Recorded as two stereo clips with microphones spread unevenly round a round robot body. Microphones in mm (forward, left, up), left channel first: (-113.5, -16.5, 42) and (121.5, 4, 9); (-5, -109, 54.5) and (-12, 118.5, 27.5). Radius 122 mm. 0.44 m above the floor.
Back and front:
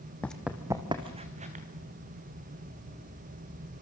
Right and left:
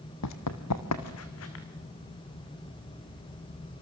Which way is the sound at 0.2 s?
95° right.